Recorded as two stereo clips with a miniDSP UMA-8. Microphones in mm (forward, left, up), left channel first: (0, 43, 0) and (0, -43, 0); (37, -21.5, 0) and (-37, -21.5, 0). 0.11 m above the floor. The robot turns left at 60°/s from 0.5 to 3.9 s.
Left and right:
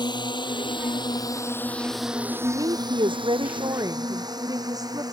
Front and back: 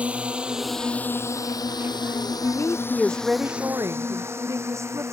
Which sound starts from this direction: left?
A drone, at 0.0 s.